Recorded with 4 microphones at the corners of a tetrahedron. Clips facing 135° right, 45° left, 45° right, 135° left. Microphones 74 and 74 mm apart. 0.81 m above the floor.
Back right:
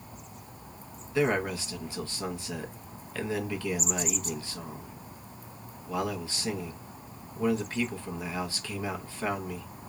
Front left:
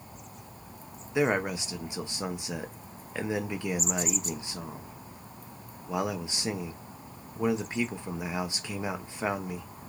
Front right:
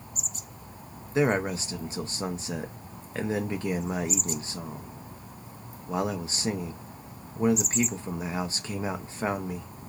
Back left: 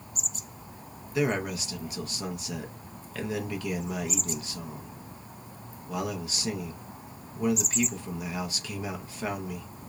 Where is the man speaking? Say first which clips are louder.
Even, front right 3 dB; 15° right, 0.7 m.